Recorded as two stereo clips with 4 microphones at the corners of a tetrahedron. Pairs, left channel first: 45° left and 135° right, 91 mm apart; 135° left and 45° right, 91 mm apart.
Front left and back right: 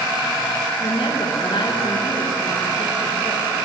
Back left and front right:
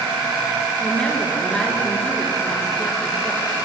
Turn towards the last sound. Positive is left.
turn(degrees=55)